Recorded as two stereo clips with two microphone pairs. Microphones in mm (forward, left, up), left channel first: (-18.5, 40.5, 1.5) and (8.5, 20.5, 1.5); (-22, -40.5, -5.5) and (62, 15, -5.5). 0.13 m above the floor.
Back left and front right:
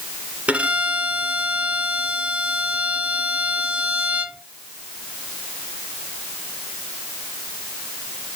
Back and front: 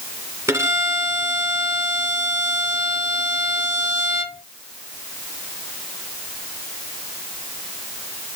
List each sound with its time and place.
0.5 s a violin: 15° right, 1.9 m